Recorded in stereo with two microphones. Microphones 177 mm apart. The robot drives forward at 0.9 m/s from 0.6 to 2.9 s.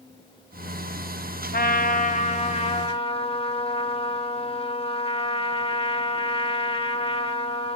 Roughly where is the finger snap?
No finger snap in this recording.